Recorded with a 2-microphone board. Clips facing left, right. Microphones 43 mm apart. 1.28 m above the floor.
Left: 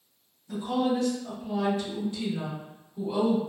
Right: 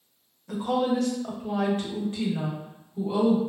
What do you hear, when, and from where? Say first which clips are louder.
0.5 s a woman speaking: right 2 dB; 80° right, 1.0 m; by 3.4 s 10° right (ahead or behind), 1.3 m